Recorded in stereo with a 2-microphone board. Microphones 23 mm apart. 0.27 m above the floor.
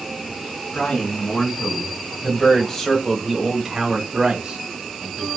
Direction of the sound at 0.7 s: 60° left (ahead or behind).